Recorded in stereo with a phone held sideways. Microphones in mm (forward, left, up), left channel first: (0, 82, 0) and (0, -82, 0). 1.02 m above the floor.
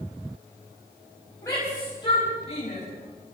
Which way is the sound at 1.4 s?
20° left (ahead or behind).